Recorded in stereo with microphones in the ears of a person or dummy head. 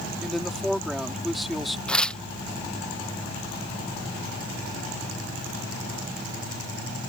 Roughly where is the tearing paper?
Centre.